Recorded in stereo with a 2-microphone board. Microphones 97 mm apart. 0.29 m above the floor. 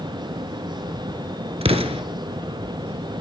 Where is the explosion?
85° right, 0.9 m.